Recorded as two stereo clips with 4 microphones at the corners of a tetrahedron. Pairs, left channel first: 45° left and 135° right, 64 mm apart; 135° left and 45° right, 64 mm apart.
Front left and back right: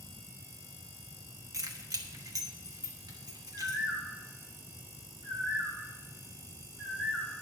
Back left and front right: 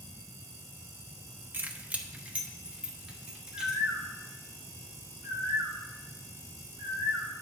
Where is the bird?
85° right, 3.5 m.